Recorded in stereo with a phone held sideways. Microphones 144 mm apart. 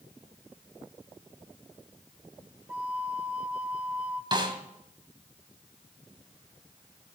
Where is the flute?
10° right (ahead or behind), 0.6 m.